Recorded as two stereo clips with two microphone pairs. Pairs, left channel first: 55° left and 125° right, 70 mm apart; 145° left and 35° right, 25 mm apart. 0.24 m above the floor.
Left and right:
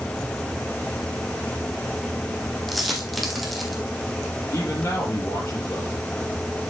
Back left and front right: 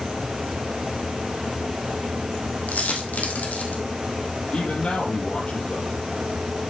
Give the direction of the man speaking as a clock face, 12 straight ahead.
9 o'clock.